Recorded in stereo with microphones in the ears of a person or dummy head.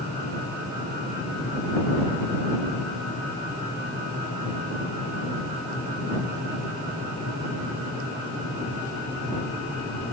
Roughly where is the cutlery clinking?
No cutlery clinking in this recording.